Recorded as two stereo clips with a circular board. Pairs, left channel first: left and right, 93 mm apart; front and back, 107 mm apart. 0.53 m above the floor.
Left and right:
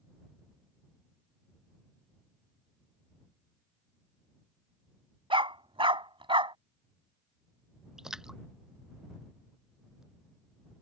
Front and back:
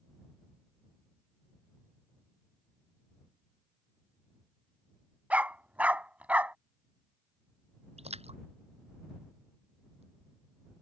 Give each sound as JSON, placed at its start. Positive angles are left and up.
{"t": 5.3, "sound": "a dog barking", "azimuth_deg": -105}
{"t": 8.0, "sound": "a splash", "azimuth_deg": -175}